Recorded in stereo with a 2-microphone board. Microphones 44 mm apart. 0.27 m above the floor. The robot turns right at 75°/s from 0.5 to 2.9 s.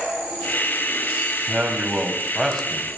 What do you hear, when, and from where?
1.5 s a man speaking: 70° right, 1.9 m; by 3.0 s 35° left, 1.9 m